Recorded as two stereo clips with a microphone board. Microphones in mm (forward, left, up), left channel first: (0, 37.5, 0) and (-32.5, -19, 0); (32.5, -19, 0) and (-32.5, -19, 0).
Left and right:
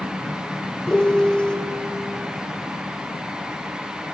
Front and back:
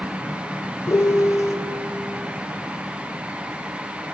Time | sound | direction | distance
0.9 | a piano | 10° right | 0.6 m